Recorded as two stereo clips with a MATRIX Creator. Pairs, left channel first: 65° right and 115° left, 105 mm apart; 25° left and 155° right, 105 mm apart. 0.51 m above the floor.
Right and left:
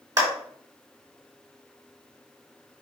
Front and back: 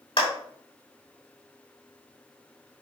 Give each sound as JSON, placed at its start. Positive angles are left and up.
{"t": 0.2, "sound": "a clap", "azimuth_deg": 60, "distance_m": 4.5}